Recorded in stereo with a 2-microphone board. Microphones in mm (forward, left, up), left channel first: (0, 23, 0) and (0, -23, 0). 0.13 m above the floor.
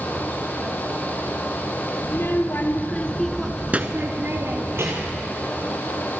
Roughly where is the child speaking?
Left.